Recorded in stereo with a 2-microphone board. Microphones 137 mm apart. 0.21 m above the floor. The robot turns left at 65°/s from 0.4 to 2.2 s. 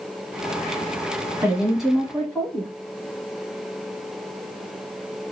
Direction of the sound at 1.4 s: 15° right (ahead or behind).